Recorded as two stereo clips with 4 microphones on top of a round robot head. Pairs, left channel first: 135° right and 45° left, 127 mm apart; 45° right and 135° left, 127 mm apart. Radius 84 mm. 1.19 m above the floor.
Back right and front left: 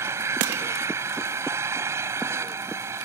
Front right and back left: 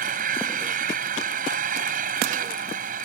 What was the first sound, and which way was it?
An engine running, 115° left.